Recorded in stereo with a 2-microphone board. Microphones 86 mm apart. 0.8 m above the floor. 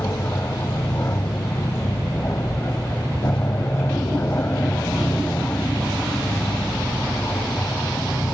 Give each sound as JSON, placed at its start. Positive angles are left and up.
{"t": 0.0, "sound": "an aircraft", "side_deg": 35}